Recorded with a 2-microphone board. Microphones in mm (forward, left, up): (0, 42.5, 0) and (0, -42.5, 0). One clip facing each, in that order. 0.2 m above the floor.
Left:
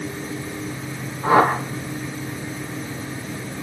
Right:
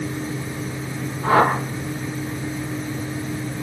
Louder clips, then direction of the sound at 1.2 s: Left 1 dB; 10° left (ahead or behind).